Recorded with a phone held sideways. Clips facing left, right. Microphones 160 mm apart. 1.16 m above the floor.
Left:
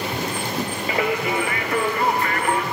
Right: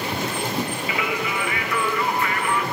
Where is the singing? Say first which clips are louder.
Left 4 dB; 40° left (ahead or behind), 0.5 m.